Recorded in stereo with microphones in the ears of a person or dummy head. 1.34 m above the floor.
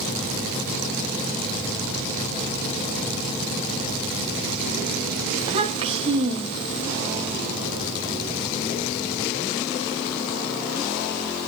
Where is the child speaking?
30° right (ahead or behind), 1.3 m.